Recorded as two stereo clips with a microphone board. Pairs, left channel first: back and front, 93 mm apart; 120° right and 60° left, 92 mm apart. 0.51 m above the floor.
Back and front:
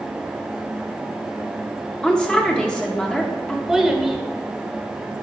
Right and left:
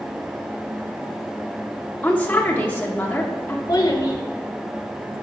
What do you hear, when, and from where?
2.0 s a woman speaking: 125° right, 0.8 m
3.7 s a child speaking: 85° right, 1.1 m